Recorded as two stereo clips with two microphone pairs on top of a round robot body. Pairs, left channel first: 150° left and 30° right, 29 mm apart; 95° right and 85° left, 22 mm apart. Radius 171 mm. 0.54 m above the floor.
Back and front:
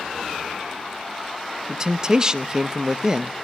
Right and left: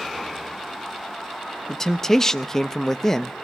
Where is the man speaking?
100° right, 0.9 m.